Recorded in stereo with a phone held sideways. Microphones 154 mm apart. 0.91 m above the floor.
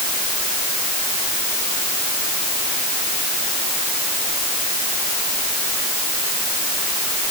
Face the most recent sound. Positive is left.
No sound to turn to.